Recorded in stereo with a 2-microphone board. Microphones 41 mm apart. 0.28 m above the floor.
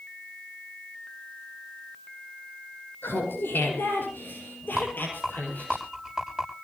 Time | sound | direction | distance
3.0 | laughter | 65° left (ahead or behind) | 6 m
4.8 | a rattle | 5° right (ahead or behind) | 9 m